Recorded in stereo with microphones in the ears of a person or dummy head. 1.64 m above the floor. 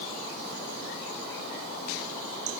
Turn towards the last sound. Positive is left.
No sound to turn to.